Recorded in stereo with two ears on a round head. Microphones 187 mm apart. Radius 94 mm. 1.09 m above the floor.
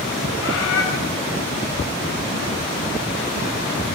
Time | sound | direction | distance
0.4 | a bird | 65° left (ahead or behind) | 1.3 m